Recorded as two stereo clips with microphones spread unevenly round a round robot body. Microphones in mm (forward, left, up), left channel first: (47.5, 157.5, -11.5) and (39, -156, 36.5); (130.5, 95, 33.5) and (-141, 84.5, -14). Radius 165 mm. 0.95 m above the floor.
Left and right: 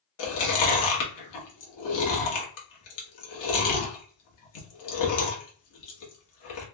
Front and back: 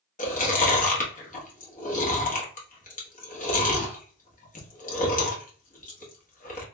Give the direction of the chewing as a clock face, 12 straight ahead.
10 o'clock.